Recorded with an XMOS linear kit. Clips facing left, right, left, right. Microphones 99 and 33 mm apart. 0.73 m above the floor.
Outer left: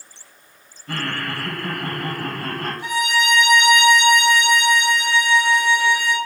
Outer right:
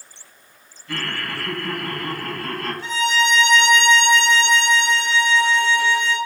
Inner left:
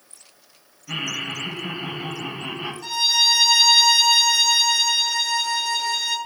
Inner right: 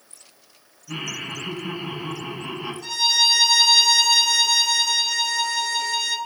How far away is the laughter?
About 4.5 m.